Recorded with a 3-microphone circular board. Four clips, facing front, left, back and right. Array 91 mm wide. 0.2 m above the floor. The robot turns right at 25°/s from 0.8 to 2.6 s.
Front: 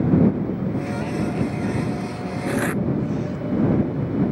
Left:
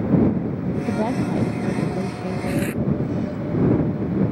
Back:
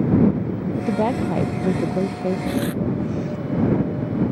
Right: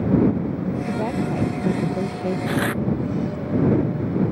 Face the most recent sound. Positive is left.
turn(degrees=-60)